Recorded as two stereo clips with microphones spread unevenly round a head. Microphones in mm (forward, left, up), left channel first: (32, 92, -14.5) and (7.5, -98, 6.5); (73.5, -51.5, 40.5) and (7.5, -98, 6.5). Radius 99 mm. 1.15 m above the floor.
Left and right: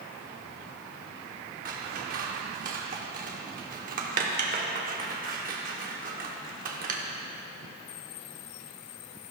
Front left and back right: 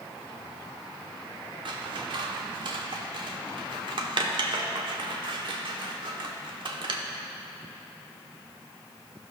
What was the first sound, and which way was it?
Scissors, 120° right.